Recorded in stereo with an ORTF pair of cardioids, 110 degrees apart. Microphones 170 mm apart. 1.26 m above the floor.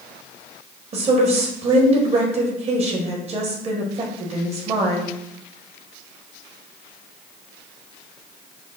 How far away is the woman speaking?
About 1.1 m.